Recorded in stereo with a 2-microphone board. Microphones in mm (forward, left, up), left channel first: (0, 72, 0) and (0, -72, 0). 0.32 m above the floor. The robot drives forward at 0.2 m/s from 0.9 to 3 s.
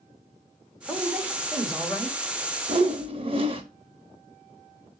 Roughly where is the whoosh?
Right.